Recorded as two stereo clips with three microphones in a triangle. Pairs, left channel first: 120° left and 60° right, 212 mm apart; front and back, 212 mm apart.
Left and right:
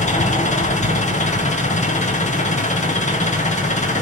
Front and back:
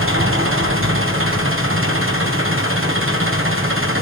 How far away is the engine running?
About 3 m.